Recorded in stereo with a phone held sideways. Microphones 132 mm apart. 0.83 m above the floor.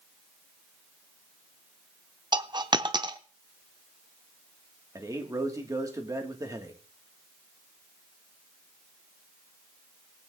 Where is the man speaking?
25° right (ahead or behind), 1.5 m.